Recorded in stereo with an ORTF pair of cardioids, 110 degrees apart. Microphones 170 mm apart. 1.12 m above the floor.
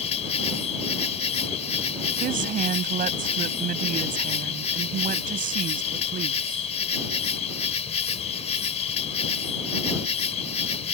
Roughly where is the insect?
Ahead left.